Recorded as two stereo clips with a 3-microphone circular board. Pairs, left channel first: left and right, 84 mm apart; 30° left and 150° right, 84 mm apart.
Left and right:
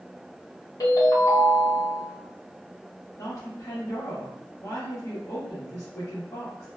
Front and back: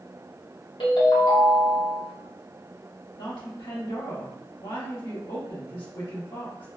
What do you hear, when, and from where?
0.8 s a ringtone: 45° left, 1.1 m
3.2 s a woman speaking: 40° left, 1.3 m